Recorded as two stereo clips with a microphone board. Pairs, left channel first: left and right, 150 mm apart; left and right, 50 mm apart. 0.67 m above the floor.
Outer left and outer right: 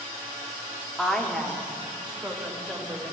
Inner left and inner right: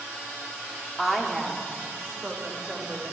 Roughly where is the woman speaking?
Centre.